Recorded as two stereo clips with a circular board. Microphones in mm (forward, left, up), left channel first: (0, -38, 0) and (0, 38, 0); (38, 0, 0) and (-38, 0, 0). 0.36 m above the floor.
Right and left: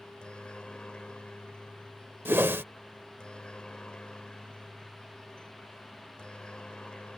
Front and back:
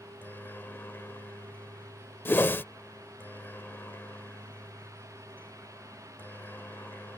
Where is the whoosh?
45° left.